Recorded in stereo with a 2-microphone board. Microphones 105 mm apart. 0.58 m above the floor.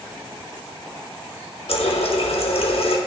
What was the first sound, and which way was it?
A running tap, 70° left (ahead or behind).